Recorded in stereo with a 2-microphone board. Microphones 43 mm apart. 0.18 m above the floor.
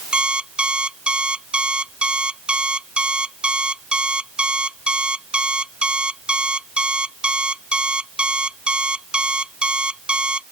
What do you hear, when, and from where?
0.1 s an alarm clock: 25° right (ahead or behind)